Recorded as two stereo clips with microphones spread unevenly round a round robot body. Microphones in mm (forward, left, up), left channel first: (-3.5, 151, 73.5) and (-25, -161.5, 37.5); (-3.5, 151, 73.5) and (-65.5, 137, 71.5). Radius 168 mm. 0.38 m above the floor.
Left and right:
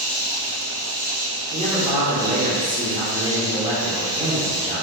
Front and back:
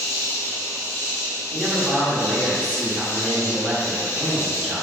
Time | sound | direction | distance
0.0 | an insect | 25° right | 1.9 m
1.5 | a man speaking | 110° right | 1.4 m